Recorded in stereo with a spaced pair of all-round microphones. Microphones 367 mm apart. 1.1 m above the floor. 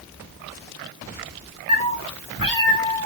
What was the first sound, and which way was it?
A cat meowing, 40° right (ahead or behind).